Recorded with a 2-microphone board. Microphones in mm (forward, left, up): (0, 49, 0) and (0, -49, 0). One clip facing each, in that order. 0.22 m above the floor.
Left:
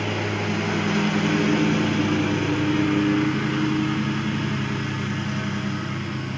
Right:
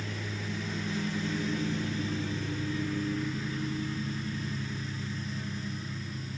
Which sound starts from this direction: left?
A lawn mower, at 0.0 s.